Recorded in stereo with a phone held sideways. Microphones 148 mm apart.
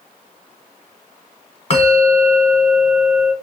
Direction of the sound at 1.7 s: 45° left (ahead or behind).